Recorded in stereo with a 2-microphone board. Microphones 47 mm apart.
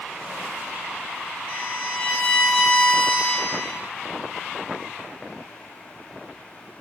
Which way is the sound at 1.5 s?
20° left (ahead or behind).